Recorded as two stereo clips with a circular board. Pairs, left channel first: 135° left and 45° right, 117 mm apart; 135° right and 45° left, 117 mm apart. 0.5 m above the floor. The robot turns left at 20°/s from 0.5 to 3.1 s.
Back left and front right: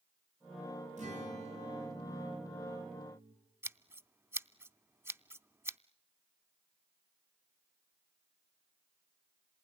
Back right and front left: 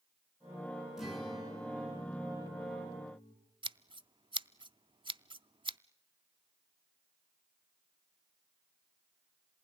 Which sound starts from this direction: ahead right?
A guitar, at 1.0 s.